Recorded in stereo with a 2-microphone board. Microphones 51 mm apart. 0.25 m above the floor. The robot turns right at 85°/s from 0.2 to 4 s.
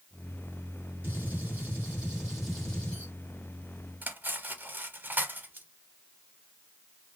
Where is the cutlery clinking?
40° right (ahead or behind), 0.7 m.